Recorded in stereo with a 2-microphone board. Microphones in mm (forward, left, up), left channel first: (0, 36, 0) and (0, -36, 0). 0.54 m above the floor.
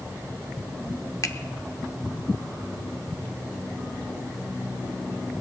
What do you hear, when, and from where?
1.2 s a finger snap: 50° left (ahead or behind), 0.8 m